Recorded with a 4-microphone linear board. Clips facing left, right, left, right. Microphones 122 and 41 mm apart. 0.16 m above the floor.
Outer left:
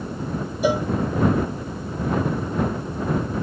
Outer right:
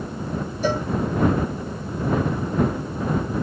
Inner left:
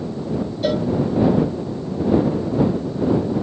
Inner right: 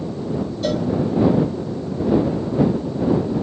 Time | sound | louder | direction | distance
0.6 | a cowbell | outer left 3 dB, inner left 2 dB | 15° left (ahead or behind) | ?